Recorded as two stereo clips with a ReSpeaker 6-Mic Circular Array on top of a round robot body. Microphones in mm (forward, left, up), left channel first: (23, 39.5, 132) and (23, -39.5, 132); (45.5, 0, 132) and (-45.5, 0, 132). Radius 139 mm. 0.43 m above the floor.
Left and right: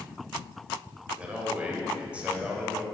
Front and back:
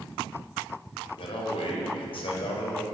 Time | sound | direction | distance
1.2 | a man speaking | 15° right | 3 m